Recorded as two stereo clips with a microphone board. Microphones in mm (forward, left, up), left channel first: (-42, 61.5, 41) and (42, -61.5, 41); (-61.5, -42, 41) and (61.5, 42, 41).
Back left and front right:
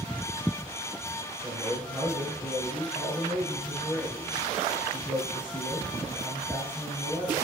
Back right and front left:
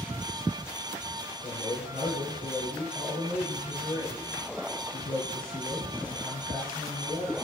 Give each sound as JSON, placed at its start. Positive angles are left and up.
{"t": 1.4, "sound": "a man speaking", "azimuth_deg": -140, "distance_m": 4.5}